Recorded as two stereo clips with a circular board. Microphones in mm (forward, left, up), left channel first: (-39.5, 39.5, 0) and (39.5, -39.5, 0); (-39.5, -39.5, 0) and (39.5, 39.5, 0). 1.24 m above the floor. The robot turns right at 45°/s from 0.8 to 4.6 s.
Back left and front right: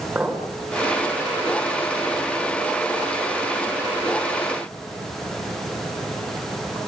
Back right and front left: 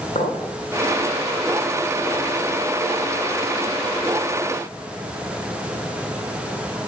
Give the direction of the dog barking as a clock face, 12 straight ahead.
I don't hear a dog barking.